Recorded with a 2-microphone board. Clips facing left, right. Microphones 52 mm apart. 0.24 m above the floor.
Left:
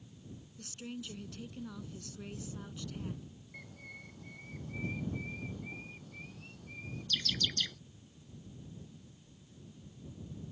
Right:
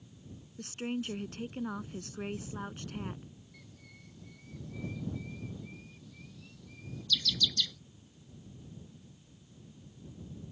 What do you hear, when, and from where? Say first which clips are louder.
0.6 s a woman speaking: right 9 dB; 50° right (ahead or behind)
3.5 s a bird: left 6 dB; 45° left (ahead or behind)